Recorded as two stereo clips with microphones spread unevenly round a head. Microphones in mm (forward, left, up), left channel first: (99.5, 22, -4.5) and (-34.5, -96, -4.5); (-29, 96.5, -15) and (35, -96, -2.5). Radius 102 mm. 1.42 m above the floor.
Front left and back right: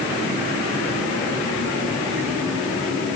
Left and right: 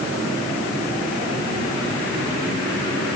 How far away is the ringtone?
I don't hear a ringtone.